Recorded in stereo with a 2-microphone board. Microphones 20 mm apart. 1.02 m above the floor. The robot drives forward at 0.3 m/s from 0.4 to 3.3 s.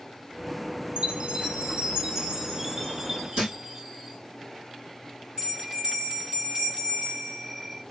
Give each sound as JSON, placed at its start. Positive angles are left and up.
{"t": 1.0, "sound": "a chime", "side_deg": -65, "distance_m": 0.6}
{"t": 3.4, "sound": "a thud", "side_deg": -60, "distance_m": 2.5}
{"t": 5.4, "sound": "a bell", "side_deg": -40, "distance_m": 2.5}